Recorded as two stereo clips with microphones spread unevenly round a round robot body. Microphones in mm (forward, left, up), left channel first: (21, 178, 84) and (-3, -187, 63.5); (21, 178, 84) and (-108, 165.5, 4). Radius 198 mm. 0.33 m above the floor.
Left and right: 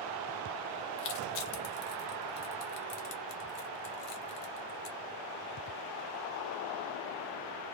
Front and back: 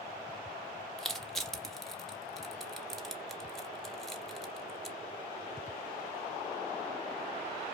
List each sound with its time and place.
1.0 s crushing: 100° left, 1.0 m